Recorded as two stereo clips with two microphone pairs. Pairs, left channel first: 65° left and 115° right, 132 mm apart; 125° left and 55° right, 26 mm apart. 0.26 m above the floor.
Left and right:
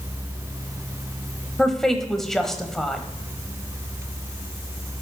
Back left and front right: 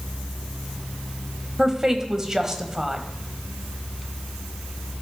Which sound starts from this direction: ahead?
A woman speaking, at 1.6 s.